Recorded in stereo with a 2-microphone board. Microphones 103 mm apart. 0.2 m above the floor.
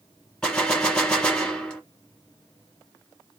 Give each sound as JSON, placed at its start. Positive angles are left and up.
{"t": 0.4, "sound": "a gunshot", "side_deg": 5, "distance_m": 2.0}